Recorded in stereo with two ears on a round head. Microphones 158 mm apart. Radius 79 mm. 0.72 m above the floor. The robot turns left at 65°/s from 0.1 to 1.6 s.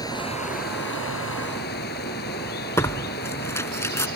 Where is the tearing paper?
15° left (ahead or behind).